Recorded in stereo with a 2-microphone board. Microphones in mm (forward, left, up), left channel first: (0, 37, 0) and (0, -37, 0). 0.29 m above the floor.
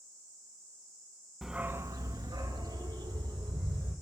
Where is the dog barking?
Centre (ahead or behind), 0.6 m; by 3.9 s 90° right, 3 m.